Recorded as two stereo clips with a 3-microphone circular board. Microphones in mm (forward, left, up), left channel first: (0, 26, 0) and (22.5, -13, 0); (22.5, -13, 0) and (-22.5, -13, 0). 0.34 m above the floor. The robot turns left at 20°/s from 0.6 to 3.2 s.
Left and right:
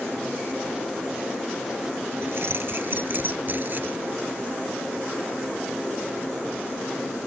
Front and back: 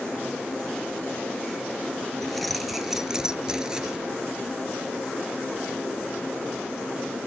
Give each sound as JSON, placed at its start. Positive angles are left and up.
{"t": 2.2, "sound": "keys jangling", "azimuth_deg": -85}